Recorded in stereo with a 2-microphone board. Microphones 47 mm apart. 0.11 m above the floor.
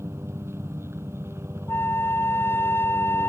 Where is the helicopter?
65° right (ahead or behind).